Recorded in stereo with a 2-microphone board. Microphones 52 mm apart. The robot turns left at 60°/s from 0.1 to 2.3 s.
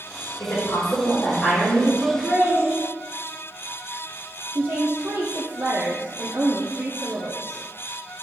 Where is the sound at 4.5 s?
40° right (ahead or behind), 0.7 m.